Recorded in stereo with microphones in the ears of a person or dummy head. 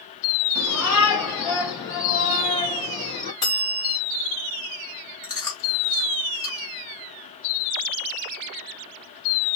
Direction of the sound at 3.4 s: 25° left (ahead or behind).